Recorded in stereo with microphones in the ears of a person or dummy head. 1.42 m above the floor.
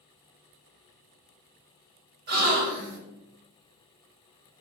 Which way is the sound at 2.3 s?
55° right (ahead or behind).